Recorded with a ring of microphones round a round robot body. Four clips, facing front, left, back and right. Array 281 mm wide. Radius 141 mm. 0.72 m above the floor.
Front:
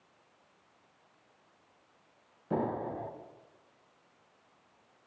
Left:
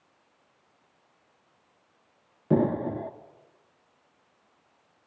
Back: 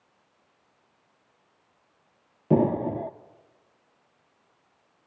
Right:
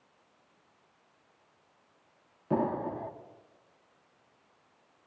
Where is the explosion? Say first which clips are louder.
Left 5 dB, back 10 dB; 150° left, 0.7 m.